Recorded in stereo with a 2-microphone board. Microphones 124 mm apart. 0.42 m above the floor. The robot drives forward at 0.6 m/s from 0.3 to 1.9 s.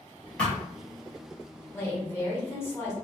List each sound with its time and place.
0.4 s a thud: 10° left (ahead or behind), 1.3 m
1.7 s a woman speaking: 20° left (ahead or behind), 0.9 m